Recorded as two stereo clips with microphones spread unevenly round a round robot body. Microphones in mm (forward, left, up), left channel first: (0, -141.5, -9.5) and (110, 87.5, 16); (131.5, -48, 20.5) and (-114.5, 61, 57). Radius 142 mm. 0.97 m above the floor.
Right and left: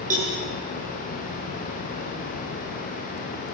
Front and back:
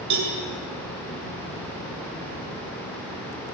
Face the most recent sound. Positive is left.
turn(degrees=130)